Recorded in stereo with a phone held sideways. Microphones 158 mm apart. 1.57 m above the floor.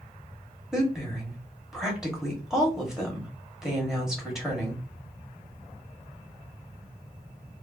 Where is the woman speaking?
5° right (ahead or behind), 1.6 m.